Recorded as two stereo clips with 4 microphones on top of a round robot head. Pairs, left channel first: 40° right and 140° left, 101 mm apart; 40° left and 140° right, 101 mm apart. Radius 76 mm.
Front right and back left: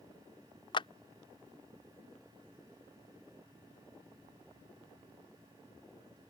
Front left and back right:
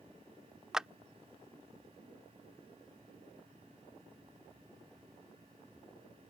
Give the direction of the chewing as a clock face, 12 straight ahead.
I don't hear chewing.